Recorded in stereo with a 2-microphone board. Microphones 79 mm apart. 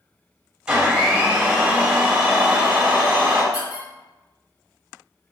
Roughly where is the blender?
Centre.